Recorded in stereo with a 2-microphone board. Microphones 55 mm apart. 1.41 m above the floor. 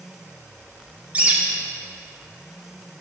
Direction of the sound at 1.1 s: 25° right (ahead or behind).